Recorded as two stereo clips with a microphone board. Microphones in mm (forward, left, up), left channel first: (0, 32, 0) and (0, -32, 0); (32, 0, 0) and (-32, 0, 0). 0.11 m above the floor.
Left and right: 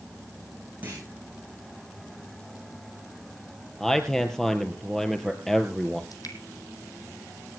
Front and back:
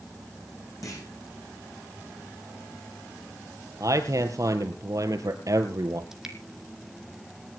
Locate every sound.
0.8 s a clunk: 30° right, 7 m
3.8 s a man speaking: 170° left, 2 m
6.1 s dripping: 100° left, 1.6 m